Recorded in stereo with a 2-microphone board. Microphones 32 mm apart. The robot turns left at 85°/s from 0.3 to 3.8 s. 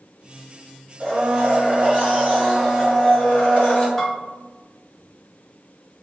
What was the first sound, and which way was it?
A blender, 50° right.